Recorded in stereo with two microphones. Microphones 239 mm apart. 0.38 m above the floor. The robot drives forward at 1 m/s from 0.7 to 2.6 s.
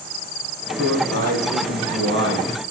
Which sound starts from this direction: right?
A man speaking, at 0.8 s.